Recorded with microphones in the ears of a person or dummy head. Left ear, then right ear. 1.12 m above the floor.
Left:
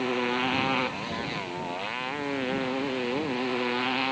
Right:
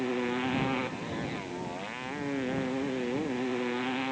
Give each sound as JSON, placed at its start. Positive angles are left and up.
{"t": 0.0, "sound": "a motorcycle", "side_deg": 40}